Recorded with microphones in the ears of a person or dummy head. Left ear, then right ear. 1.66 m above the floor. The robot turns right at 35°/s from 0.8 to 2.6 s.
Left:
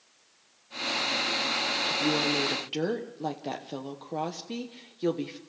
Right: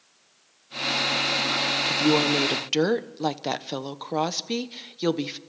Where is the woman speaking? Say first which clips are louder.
Right 7 dB; 65° right (ahead or behind), 1.0 m; by 5.4 s 45° right (ahead or behind), 1.0 m.